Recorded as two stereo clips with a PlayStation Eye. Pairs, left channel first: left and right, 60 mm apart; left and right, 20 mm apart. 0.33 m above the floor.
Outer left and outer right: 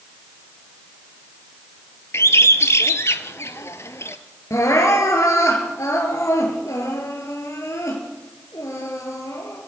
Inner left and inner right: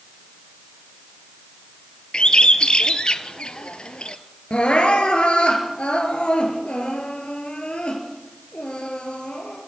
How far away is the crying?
About 3.5 m.